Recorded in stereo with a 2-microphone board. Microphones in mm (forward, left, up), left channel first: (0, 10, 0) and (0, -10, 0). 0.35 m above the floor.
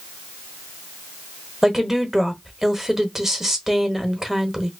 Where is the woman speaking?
10° right (ahead or behind), 1.2 m.